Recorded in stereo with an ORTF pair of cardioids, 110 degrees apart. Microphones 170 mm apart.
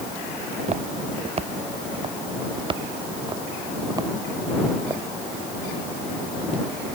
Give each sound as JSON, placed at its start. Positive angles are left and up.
{"t": 0.4, "sound": "footsteps", "azimuth_deg": -40}